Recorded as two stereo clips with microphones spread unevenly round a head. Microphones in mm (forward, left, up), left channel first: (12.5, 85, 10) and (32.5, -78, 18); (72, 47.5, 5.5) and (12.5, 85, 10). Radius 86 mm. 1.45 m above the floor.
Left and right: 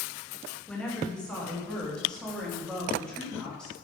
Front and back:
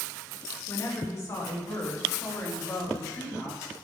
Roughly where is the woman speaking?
Ahead.